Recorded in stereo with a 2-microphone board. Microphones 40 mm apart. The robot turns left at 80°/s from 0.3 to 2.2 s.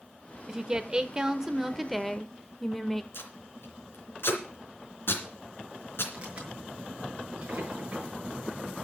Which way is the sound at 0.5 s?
15° right (ahead or behind).